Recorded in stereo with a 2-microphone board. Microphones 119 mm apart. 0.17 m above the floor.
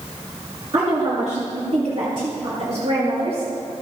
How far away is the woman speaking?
About 2.5 m.